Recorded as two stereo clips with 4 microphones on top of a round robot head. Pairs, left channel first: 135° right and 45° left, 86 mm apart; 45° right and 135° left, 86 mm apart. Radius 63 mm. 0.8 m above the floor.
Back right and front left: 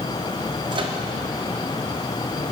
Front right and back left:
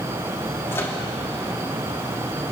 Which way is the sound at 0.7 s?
20° left.